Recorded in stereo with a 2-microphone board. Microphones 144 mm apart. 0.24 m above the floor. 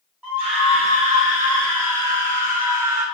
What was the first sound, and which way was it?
A scream, 10° right (ahead or behind).